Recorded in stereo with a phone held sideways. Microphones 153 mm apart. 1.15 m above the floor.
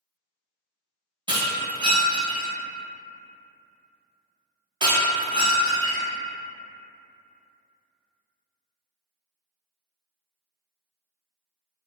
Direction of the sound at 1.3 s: 30° right (ahead or behind).